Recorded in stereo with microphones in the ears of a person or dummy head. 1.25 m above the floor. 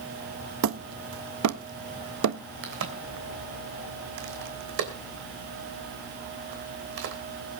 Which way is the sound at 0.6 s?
75° right (ahead or behind).